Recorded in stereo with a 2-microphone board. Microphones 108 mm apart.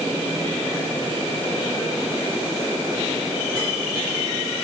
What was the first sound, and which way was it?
Only background noise.